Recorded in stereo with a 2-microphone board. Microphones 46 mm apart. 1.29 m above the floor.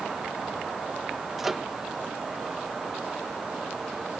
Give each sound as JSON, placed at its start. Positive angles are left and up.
{"t": 1.4, "sound": "a microwave", "side_deg": -5}